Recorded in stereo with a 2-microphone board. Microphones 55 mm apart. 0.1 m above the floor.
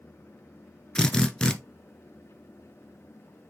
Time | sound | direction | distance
0.9 | a drill | 15° left (ahead or behind) | 0.8 m